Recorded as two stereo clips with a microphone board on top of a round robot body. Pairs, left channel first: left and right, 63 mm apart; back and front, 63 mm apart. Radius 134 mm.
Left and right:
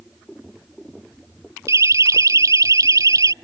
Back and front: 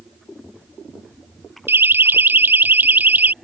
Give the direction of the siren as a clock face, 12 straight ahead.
2 o'clock.